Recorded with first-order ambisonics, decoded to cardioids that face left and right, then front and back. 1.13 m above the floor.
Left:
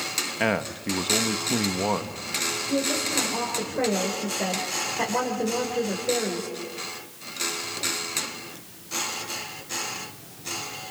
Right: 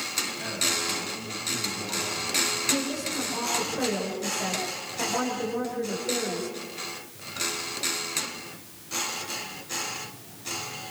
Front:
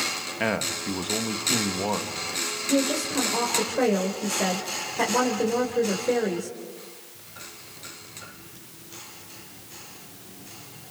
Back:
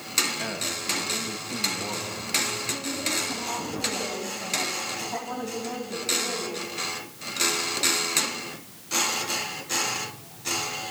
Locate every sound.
0.4 s a man speaking: 60° left, 1.6 m
2.7 s a woman speaking: 20° left, 4 m